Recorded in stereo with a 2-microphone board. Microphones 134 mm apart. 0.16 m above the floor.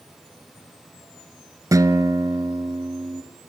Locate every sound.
1.7 s a guitar: 25° right (ahead or behind), 1.2 m